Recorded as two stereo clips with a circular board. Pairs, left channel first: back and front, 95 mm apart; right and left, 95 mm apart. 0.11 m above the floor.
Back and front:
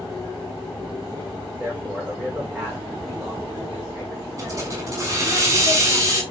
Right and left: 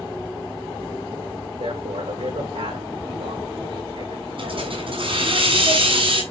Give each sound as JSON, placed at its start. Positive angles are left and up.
{"t": 1.6, "sound": "a man speaking", "azimuth_deg": 75, "distance_m": 7.5}
{"t": 4.4, "sound": "a hiss", "azimuth_deg": 60, "distance_m": 6.0}